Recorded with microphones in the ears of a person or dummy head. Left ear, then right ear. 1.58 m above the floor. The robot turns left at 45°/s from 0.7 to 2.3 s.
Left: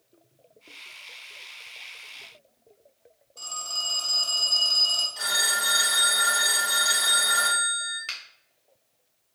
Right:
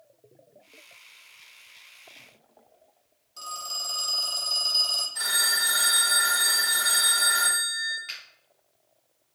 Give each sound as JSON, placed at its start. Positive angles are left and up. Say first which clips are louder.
{"t": 3.4, "sound": "a phone ringing", "louder": "left 2 dB", "side_deg": -50, "distance_m": 0.9}
{"t": 5.2, "sound": "a phone ringing", "louder": "even", "side_deg": -45, "distance_m": 1.0}
{"t": 8.1, "sound": "a finger snap", "louder": "left 3 dB", "side_deg": 20, "distance_m": 0.8}